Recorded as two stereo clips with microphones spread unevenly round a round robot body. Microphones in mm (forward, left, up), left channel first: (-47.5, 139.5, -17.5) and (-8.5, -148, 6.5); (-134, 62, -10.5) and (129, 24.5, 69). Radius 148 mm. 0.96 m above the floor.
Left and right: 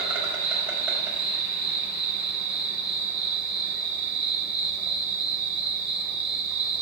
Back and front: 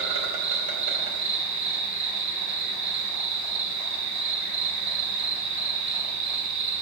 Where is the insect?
5° left, 3 m.